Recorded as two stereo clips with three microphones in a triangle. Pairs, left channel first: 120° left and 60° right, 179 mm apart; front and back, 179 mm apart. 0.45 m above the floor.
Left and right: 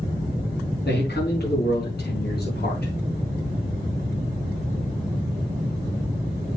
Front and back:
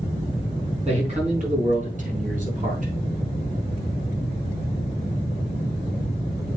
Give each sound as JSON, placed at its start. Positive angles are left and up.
{"t": 0.8, "sound": "a man speaking", "azimuth_deg": 130, "distance_m": 4.5}